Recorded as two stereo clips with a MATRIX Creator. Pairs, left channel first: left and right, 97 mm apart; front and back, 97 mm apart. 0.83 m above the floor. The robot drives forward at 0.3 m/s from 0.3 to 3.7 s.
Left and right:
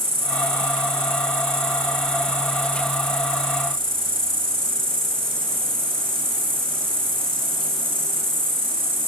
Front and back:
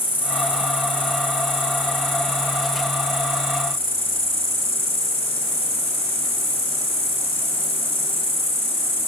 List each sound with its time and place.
0.0 s an insect: 105° right, 6 m; by 9.1 s 115° right, 6.5 m